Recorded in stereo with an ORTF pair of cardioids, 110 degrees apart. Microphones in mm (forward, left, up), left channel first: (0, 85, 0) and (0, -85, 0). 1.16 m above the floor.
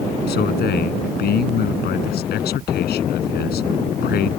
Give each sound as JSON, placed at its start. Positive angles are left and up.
{"t": 0.3, "sound": "a man speaking", "azimuth_deg": 70}